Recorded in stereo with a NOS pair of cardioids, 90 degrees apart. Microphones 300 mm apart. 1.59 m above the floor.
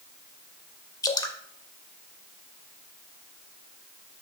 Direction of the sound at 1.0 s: 10° left.